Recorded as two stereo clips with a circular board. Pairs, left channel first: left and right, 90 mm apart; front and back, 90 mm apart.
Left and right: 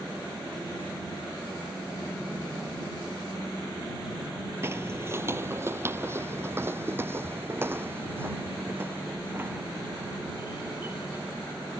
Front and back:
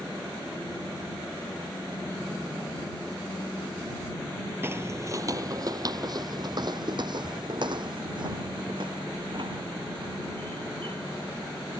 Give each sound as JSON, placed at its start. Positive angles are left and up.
{"t": 4.6, "sound": "footsteps", "azimuth_deg": -135}